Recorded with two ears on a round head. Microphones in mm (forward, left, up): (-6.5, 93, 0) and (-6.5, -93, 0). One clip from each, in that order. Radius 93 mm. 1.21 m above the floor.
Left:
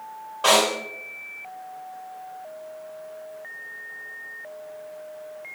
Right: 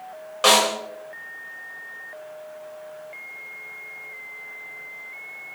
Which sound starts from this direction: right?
A snare drum, at 0.4 s.